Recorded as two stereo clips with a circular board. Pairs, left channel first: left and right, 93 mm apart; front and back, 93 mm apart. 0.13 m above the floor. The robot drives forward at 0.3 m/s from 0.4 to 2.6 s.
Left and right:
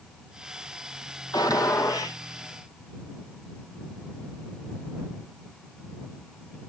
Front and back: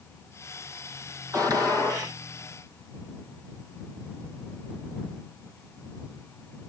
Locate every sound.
1.3 s a gunshot: 135° left, 1.8 m; by 2.2 s 140° left, 1.9 m